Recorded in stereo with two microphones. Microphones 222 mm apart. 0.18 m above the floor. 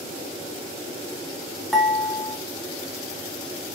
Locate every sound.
1.7 s dishes clattering: centre (ahead or behind), 0.8 m